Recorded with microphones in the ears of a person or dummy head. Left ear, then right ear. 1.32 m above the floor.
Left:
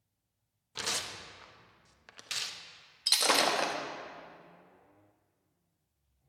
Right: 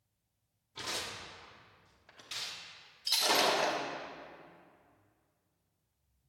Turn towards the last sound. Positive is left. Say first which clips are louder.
# left 2 dB
turn(degrees=45)  # may be behind; listen again after turning